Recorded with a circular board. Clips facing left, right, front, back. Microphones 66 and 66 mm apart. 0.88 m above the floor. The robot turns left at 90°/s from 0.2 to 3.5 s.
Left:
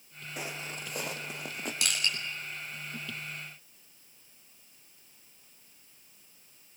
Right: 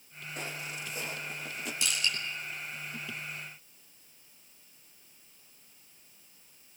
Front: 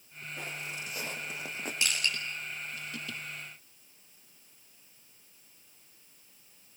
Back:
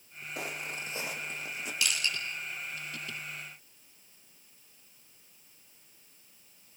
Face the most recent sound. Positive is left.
turn(degrees=-90)